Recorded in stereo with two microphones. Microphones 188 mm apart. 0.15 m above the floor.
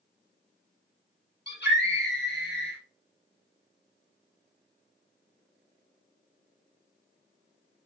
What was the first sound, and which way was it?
A scream, 65° left (ahead or behind).